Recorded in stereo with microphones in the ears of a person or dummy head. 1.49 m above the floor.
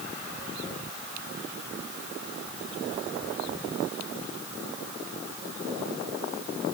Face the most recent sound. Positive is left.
No sound to turn to.